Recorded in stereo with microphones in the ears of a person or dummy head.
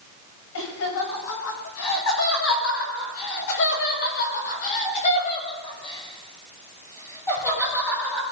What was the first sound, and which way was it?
Laughter, 70° left (ahead or behind).